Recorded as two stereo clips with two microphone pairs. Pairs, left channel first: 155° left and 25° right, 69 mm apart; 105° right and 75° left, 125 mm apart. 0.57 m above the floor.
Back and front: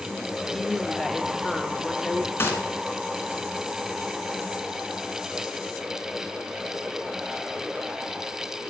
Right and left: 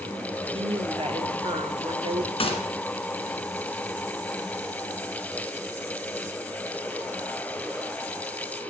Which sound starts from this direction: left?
A woman speaking, at 0.5 s.